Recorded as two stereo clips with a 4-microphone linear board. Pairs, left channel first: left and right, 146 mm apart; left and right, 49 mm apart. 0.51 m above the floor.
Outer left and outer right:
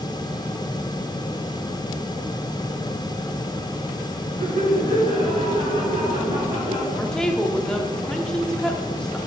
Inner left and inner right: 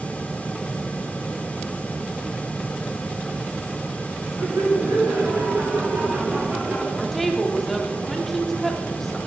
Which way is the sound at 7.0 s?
5° left (ahead or behind).